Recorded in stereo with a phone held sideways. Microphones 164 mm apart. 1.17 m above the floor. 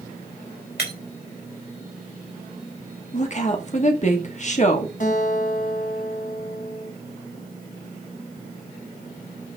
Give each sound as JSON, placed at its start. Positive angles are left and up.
{"t": 0.8, "sound": "breaking glass", "side_deg": 85, "distance_m": 4.0}
{"t": 3.1, "sound": "a woman speaking", "side_deg": 45, "distance_m": 1.8}
{"t": 5.0, "sound": "a guitar", "side_deg": 55, "distance_m": 2.0}